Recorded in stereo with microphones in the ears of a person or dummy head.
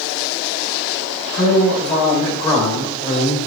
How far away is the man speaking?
About 5 m.